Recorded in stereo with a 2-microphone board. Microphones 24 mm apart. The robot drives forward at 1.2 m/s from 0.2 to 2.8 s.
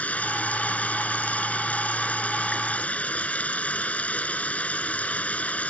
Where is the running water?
90° left; by 5.7 s 80° left.